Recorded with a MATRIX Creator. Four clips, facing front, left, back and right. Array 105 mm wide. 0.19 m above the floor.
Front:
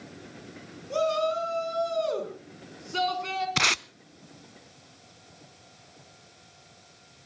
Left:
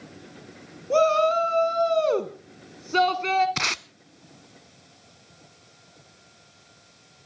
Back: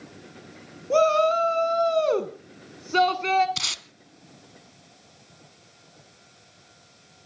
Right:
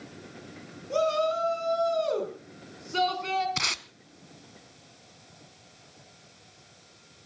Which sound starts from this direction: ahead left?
Tape being pulled, at 3.6 s.